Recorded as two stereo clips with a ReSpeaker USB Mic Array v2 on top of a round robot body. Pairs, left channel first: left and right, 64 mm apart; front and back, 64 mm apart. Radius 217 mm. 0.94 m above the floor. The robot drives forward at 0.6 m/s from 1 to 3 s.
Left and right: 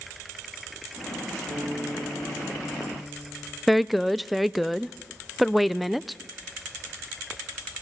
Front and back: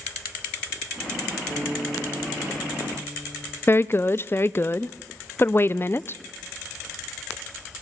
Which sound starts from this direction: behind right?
A guitar, at 1.5 s.